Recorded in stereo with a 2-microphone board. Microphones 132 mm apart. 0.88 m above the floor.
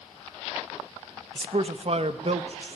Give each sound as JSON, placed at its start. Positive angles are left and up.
{"t": 1.4, "sound": "a man speaking", "side_deg": -45, "distance_m": 0.7}